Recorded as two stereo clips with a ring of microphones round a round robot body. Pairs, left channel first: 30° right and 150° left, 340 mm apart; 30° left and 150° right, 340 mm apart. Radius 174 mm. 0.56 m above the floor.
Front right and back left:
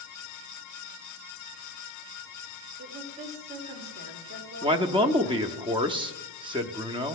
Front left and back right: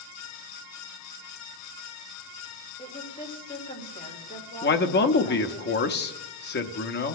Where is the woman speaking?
95° left, 3.5 m.